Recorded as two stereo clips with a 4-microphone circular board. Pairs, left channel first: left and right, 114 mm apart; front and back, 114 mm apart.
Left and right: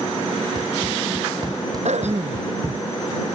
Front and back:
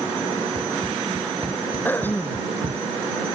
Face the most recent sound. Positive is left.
turn(degrees=-75)